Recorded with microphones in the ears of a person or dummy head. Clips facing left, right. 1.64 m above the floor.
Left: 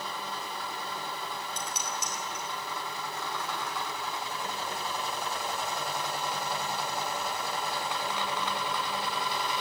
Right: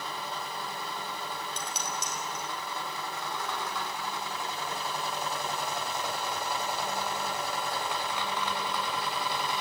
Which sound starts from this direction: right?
Dishes clattering, at 1.6 s.